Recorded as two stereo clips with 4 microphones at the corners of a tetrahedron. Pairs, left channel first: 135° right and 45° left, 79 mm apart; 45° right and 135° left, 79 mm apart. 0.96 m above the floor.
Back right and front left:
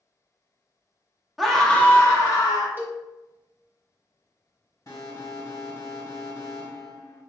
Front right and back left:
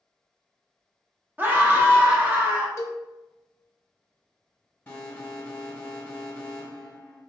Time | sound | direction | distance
1.4 | a scream | 135° left | 0.7 m
2.8 | a cowbell | 10° right | 0.6 m
4.9 | an alarm | 110° right | 1.5 m